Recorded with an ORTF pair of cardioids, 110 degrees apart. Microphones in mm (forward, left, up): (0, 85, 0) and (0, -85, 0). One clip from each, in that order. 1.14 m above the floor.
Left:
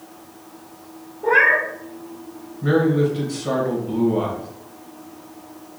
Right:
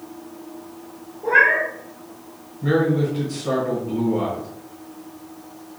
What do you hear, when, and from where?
1.2 s a cat meowing: 20° left, 1.4 m
2.6 s a man speaking: 15° left, 1.7 m